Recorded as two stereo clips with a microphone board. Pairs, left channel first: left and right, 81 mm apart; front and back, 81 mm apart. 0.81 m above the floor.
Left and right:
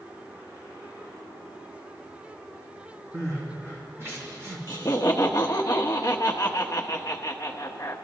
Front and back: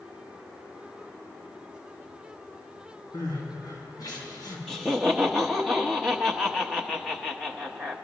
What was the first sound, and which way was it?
Crying, 35° right.